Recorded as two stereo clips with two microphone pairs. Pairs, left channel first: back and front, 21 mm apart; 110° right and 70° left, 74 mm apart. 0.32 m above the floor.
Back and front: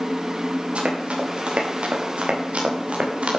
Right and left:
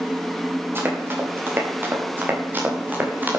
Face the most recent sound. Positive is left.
turn(degrees=5)